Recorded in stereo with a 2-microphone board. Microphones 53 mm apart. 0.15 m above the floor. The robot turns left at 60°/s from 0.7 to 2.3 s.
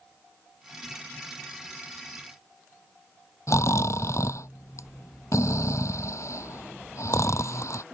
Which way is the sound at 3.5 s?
75° left (ahead or behind).